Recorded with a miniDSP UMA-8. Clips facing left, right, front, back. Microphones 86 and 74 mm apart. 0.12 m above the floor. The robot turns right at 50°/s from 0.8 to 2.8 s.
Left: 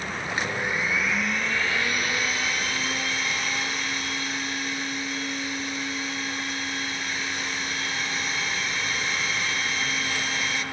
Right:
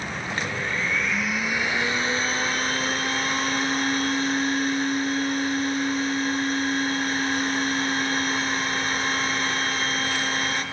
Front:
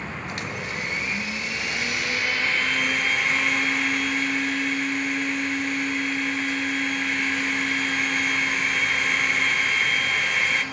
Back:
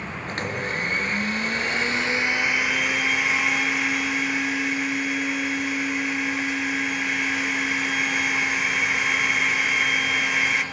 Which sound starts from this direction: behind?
A blender, at 0.3 s.